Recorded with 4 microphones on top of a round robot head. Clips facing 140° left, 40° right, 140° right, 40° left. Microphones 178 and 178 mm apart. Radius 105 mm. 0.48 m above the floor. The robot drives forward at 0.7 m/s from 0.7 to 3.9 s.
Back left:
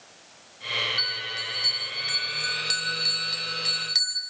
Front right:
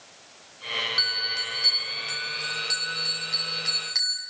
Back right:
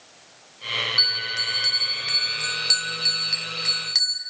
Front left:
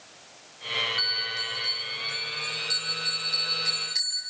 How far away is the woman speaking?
I don't hear a woman speaking.